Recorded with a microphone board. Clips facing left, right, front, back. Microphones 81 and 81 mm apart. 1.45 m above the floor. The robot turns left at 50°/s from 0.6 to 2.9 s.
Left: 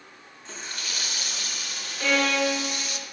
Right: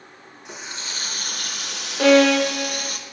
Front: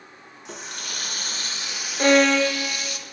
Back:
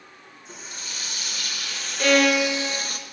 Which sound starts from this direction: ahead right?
A violin, at 2.0 s.